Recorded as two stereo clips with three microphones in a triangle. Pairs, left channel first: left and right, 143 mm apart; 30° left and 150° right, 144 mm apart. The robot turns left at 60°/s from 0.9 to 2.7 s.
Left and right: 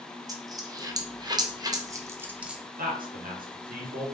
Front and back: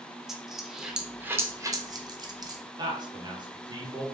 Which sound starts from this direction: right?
A man speaking, at 2.8 s.